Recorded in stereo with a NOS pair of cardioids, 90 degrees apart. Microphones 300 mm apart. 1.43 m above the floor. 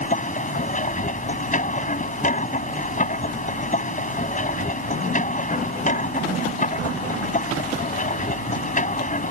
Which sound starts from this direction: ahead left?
A machine running, at 0.0 s.